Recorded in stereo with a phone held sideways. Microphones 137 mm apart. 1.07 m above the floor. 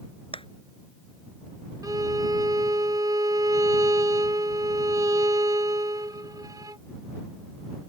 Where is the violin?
25° right (ahead or behind).